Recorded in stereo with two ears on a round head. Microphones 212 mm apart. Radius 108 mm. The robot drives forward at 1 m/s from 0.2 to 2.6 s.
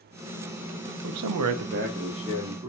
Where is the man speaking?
55° right (ahead or behind), 0.5 m; by 2.7 s 20° right (ahead or behind), 1.3 m.